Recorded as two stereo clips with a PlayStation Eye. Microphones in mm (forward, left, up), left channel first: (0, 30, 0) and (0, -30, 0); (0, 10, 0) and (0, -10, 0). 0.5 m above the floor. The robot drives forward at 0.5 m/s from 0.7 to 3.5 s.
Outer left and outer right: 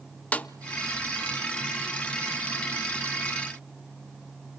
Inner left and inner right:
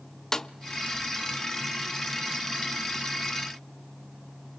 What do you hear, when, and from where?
0.3 s a snare drum: 25° left (ahead or behind), 0.5 m